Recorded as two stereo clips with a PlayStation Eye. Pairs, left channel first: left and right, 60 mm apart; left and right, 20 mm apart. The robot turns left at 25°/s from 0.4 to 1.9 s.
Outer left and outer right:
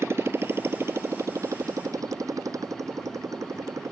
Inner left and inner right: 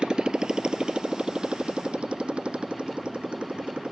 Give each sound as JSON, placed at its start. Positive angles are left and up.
{"t": 0.0, "sound": "a motorcycle", "side_deg": -50}